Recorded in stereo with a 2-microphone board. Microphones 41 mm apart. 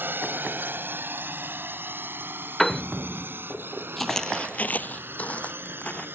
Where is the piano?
10° left (ahead or behind).